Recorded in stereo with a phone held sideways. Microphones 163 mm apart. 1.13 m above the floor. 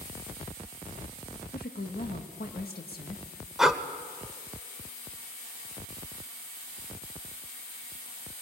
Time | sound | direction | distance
1.5 | a woman speaking | 70° left (ahead or behind) | 1.5 m
3.6 | breathing | centre (ahead or behind) | 0.9 m